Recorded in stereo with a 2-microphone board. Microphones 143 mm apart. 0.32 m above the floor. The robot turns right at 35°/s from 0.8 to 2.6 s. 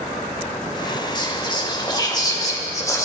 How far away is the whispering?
About 1.7 m.